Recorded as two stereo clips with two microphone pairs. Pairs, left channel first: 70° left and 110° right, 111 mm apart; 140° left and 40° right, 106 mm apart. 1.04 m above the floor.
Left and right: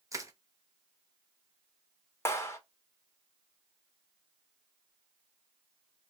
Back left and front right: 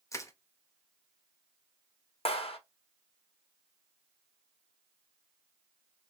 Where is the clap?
135° left, 0.9 m.